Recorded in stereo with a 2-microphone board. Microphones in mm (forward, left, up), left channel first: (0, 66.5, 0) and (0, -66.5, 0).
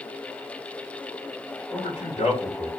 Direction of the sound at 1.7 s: 45° left (ahead or behind).